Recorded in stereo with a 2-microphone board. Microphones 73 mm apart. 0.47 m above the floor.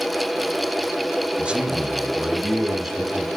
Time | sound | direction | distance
1.4 | a man speaking | 15° right (ahead or behind) | 1.3 m